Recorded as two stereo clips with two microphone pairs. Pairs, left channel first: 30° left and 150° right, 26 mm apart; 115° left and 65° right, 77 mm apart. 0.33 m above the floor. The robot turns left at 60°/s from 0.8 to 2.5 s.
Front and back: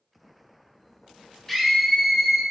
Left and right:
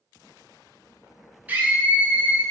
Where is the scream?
40° right, 0.9 m; by 2.4 s 100° right, 0.9 m.